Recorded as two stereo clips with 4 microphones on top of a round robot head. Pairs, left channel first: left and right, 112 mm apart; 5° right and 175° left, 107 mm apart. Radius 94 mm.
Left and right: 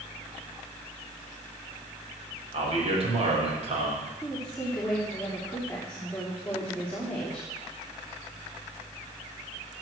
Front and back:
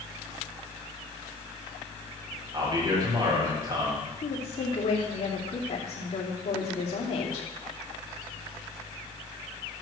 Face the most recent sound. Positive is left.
turn(degrees=5)